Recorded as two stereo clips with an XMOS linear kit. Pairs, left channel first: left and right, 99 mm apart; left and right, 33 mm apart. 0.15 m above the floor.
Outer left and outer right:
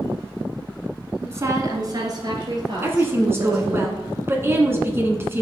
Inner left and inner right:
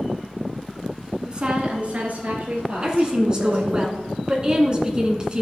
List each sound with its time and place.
1.2 s a woman speaking: 20° right (ahead or behind), 1.0 m; by 3.8 s 45° right (ahead or behind), 4 m
2.8 s a woman speaking: 25° right (ahead or behind), 1.4 m